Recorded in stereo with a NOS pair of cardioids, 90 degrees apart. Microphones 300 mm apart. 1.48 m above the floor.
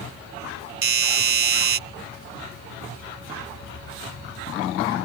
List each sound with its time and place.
0.8 s a doorbell: 45° right